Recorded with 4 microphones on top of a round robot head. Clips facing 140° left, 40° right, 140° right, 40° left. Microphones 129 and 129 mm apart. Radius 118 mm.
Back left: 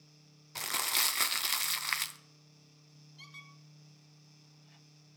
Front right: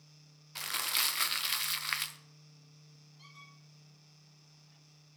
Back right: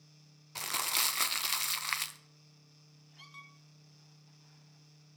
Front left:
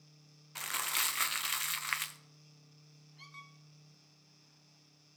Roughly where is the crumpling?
Behind.